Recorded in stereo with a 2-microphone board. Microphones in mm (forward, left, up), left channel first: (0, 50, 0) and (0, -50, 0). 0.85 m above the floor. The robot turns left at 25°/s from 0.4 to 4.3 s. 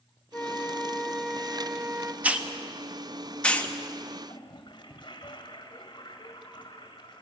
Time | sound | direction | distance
0.3 | a flute | 20° left | 0.8 m
2.2 | a hiss | 15° right (ahead or behind) | 1.1 m
4.3 | a toilet flushing | 50° left (ahead or behind) | 1.9 m